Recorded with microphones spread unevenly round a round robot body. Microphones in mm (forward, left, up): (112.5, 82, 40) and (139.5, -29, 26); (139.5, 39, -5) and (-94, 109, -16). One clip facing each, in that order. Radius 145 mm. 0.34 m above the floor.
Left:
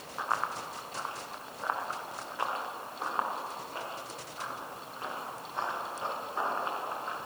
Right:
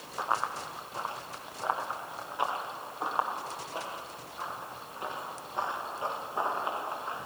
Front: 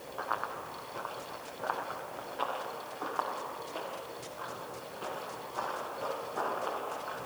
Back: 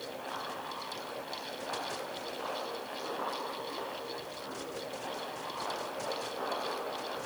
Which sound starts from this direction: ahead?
Running footsteps, at 0.2 s.